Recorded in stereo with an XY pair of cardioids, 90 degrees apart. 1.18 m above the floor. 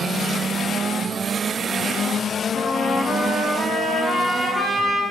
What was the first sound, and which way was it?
A trumpet, 30° left.